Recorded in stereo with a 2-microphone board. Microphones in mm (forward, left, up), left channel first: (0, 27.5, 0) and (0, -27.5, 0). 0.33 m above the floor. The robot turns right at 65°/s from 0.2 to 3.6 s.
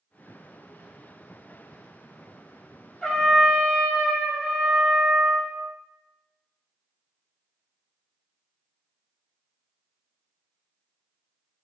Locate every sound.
3.0 s a trumpet: 155° left, 0.6 m; by 5.6 s 165° right, 0.6 m